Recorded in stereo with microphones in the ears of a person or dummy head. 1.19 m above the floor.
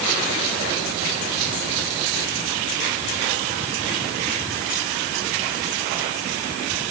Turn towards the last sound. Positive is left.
No sound to turn to.